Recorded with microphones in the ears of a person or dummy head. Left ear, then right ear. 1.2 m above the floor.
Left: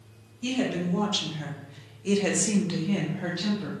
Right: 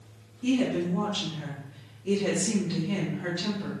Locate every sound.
0.4 s a woman speaking: 55° left (ahead or behind), 1.4 m; by 3.7 s 5° left (ahead or behind), 1.0 m